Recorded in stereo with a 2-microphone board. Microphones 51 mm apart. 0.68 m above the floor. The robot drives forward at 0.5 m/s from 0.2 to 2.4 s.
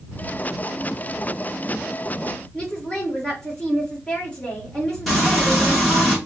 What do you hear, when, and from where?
2.5 s a woman speaking: 15° left (ahead or behind), 1.8 m
5.1 s frying: centre (ahead or behind), 1.6 m